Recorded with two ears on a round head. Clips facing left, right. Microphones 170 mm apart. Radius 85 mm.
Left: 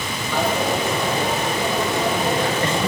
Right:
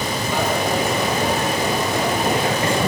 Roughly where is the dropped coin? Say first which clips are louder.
Left 1 dB; centre.